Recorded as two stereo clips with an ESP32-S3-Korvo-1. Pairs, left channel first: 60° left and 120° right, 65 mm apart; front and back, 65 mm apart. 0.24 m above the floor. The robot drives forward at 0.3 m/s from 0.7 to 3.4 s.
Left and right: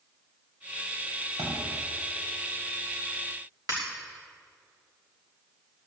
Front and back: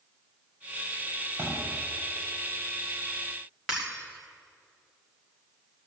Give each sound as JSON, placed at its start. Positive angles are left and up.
{"t": 1.4, "sound": "a thud", "azimuth_deg": -125, "distance_m": 6.5}
{"t": 3.7, "sound": "breaking glass", "azimuth_deg": -100, "distance_m": 6.0}